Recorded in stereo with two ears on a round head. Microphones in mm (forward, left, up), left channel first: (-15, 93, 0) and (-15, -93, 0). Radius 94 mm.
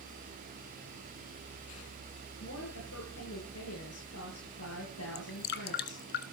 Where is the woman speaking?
85° left, 9.5 m.